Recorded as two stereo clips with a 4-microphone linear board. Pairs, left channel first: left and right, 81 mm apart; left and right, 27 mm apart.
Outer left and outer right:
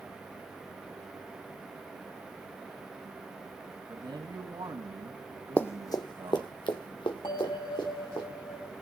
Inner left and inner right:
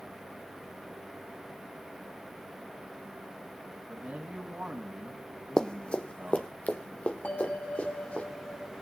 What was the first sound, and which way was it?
A man speaking, 70° right (ahead or behind).